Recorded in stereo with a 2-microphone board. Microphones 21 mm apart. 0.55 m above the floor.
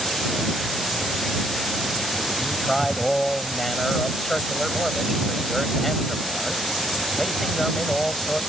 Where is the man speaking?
5° left (ahead or behind).